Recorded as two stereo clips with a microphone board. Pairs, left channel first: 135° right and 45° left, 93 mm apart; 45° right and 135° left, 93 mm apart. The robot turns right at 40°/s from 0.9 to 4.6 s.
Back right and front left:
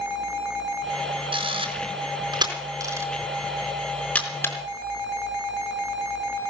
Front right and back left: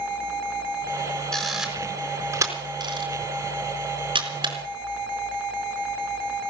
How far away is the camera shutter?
About 4 m.